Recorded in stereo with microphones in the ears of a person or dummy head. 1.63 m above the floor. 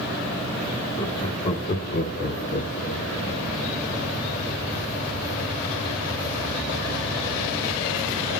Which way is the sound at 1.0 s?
30° left (ahead or behind).